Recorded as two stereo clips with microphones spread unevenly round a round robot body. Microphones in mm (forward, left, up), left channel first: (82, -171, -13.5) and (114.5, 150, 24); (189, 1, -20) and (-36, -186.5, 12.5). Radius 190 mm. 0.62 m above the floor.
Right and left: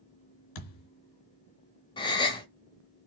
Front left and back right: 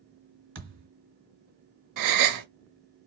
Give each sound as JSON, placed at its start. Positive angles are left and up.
{"t": 0.6, "sound": "a thud", "azimuth_deg": -90, "distance_m": 2.5}
{"t": 2.0, "sound": "a gasp", "azimuth_deg": -170, "distance_m": 0.6}